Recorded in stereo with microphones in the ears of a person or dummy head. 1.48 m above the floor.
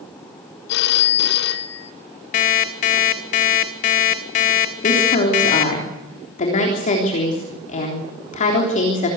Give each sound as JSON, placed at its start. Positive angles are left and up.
{"t": 0.7, "sound": "a phone ringing", "side_deg": 65, "distance_m": 1.6}
{"t": 2.3, "sound": "an alarm clock", "side_deg": 35, "distance_m": 1.3}
{"t": 4.8, "sound": "a woman speaking", "side_deg": 45, "distance_m": 3.5}